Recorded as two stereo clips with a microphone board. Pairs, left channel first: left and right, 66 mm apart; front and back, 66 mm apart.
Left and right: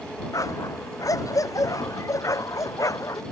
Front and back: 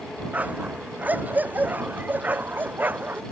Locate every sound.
0.3 s a dog barking: 115° left; by 3.2 s 120° left